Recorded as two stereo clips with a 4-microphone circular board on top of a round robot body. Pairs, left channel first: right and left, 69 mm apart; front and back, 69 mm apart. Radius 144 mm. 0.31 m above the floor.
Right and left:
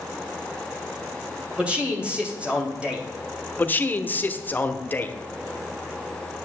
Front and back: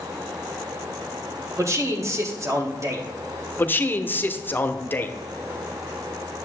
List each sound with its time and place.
1.6 s a man speaking: 160° left, 2 m
3.6 s a man speaking: 40° right, 1.0 m